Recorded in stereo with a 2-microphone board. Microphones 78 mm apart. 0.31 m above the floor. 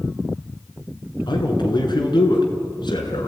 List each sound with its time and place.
1.3 s a man speaking: 70° left (ahead or behind), 4.5 m